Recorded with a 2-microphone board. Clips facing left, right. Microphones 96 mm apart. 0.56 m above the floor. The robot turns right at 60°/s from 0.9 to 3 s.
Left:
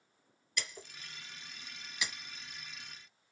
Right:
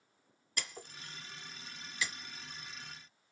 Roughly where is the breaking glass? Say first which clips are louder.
Left 1 dB; right.